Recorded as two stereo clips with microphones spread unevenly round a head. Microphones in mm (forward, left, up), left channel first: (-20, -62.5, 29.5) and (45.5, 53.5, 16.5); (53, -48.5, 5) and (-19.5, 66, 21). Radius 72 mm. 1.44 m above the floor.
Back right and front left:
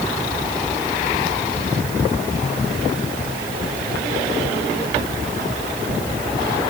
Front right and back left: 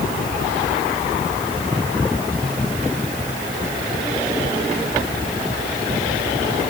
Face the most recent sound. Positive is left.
No sound to turn to.